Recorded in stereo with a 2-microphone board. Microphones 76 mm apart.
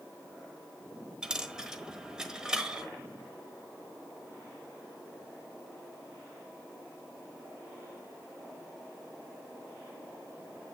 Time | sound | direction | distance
1.2 | a dropped coin | 10° right (ahead or behind) | 1.3 m